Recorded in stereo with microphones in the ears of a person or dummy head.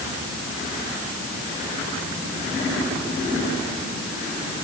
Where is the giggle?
No giggle in this recording.